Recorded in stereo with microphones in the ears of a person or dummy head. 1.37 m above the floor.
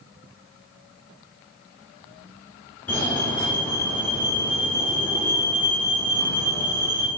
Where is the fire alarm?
5° left (ahead or behind), 1.3 m.